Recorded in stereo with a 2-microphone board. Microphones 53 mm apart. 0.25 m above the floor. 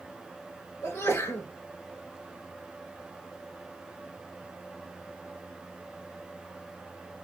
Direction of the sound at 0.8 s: 65° left (ahead or behind).